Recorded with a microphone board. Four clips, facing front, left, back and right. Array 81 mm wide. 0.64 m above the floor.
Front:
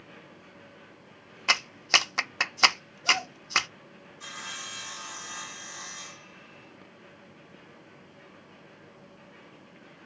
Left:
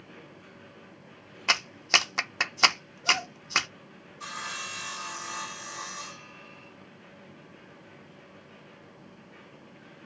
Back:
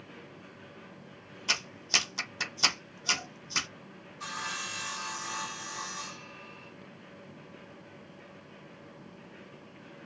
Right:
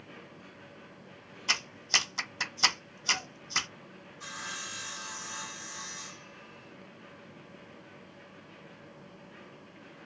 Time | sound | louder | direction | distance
1.5 | a clap | left 6 dB, front 8 dB | 45° left | 0.9 m
4.2 | sawing | left 4 dB, back 4 dB | 125° left | 2.5 m